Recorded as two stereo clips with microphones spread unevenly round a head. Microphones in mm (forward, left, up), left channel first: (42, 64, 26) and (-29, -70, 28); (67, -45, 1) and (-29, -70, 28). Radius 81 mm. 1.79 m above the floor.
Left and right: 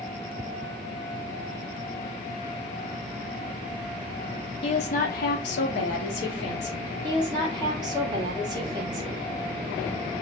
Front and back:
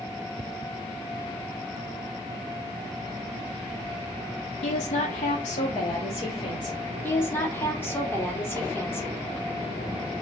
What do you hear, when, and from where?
4.6 s a woman speaking: 10° left, 0.7 m; by 6.9 s 85° left, 1.3 m
7.0 s a woman speaking: 60° right, 0.9 m